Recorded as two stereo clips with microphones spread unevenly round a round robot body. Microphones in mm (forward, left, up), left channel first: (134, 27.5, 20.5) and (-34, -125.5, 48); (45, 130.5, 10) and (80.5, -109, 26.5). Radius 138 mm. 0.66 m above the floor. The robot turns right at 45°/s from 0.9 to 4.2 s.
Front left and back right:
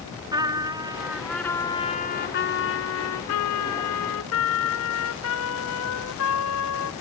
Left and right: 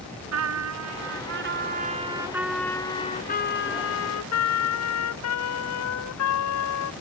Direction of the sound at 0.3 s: 65° right.